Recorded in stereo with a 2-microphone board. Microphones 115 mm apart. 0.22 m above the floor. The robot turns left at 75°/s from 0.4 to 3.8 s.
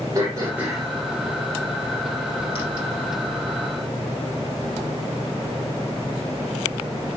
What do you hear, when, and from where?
0.1 s throat clearing: 30° right (ahead or behind), 7 m; by 2.6 s 45° left (ahead or behind), 7 m